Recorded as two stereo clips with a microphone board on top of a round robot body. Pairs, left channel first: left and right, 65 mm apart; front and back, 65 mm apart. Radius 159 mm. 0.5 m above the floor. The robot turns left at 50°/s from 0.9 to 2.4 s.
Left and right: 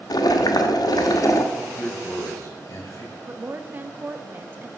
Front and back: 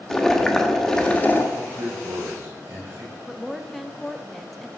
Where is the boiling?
80° left, 1.1 m; by 1.4 s 55° left, 1.1 m.